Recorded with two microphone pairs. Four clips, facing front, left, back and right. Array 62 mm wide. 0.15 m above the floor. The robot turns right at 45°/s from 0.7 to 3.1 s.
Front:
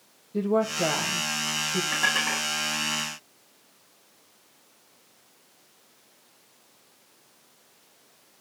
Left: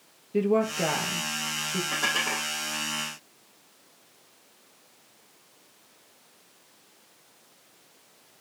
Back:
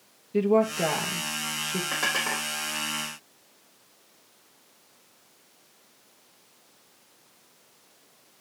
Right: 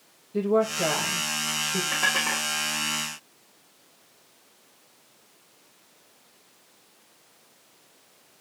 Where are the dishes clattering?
165° right, 4.5 m; by 2.5 s 140° right, 4.5 m.